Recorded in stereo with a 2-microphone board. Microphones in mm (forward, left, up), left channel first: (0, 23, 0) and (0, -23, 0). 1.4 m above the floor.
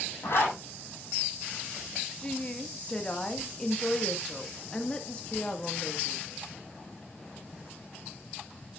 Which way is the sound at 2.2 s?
20° left (ahead or behind).